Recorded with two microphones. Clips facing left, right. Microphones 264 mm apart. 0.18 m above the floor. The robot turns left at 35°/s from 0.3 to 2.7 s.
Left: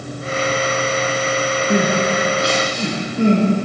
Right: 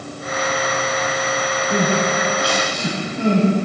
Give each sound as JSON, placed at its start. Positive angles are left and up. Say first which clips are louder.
{"t": 1.7, "sound": "crying", "louder": "left 2 dB", "side_deg": 70, "distance_m": 5.0}